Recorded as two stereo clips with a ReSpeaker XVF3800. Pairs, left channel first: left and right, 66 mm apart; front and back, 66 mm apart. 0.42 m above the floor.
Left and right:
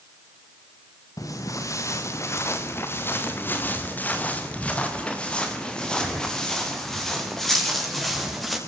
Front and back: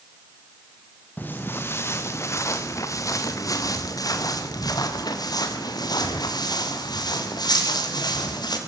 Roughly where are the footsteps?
Ahead left.